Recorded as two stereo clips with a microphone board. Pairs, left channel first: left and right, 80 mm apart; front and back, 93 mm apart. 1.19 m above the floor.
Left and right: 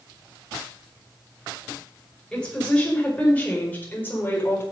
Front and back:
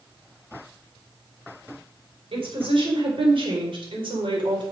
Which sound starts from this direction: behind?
A woman speaking, at 2.3 s.